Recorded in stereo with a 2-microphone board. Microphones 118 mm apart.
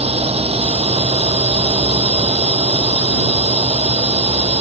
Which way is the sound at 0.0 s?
55° right (ahead or behind).